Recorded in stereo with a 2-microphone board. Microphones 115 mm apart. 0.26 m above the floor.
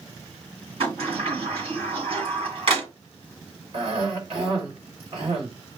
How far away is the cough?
About 3 m.